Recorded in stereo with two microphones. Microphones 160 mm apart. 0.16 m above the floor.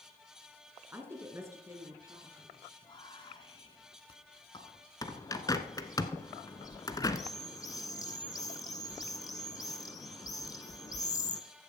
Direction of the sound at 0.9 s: 15° right (ahead or behind).